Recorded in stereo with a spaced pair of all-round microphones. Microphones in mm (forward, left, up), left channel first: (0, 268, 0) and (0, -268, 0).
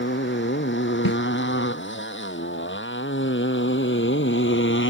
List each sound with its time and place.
0.0 s a motorcycle: 20° left (ahead or behind)
1.1 s a snare drum: 40° left (ahead or behind)